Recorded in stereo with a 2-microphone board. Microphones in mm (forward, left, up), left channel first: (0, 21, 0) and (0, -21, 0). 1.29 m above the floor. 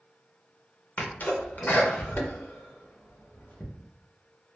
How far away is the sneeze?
About 0.6 m.